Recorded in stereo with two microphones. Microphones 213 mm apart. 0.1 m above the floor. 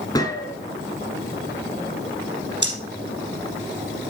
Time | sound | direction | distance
0.1 | a gunshot | 15° left (ahead or behind) | 1.7 m
2.6 | breathing | 60° right (ahead or behind) | 3.5 m